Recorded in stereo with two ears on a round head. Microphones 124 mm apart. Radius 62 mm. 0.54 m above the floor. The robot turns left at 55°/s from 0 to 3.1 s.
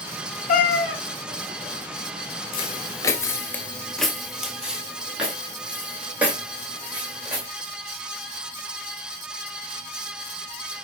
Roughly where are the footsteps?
Left.